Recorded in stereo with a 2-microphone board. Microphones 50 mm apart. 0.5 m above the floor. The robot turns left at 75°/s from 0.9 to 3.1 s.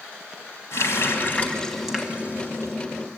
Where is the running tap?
70° left (ahead or behind), 2 m; by 2.8 s 65° right (ahead or behind), 2 m.